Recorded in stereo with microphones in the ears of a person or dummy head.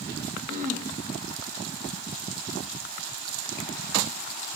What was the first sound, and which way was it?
Throat clearing, 50° right (ahead or behind).